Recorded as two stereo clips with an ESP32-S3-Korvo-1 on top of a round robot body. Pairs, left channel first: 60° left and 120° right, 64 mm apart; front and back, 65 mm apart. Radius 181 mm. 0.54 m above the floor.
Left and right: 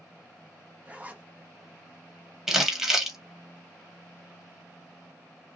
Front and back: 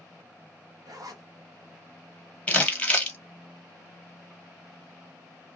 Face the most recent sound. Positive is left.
turn(degrees=-45)